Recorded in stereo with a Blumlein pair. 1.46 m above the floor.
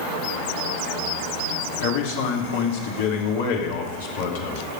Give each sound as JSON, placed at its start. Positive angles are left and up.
{"t": 1.8, "sound": "a man speaking", "azimuth_deg": 55, "distance_m": 2.5}